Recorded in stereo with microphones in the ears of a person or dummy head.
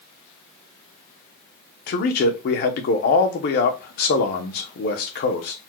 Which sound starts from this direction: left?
A man speaking, at 1.9 s.